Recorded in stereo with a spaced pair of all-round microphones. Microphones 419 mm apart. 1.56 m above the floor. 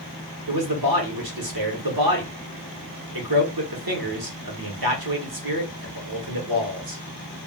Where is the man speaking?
60° right (ahead or behind), 1.1 m.